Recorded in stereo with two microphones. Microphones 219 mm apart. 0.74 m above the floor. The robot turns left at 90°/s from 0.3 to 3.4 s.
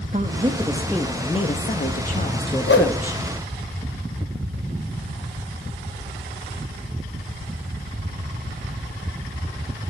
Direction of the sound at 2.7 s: 60° left (ahead or behind).